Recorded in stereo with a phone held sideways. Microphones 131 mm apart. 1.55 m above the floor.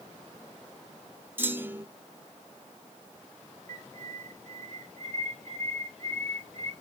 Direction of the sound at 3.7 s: 60° right (ahead or behind).